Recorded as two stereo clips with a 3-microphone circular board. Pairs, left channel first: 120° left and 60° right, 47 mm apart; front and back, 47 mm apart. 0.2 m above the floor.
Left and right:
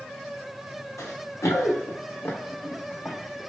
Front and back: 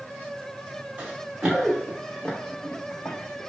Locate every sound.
1.0 s running footsteps: 115° left, 1.1 m; by 3.5 s 35° left, 1.0 m